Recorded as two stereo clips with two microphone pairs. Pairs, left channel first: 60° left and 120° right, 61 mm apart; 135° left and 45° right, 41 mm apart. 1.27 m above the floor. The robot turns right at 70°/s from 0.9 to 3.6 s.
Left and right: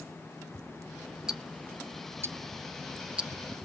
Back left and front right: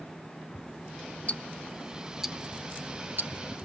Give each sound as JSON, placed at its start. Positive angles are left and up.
{"t": 1.3, "sound": "ticking", "azimuth_deg": 170, "distance_m": 0.5}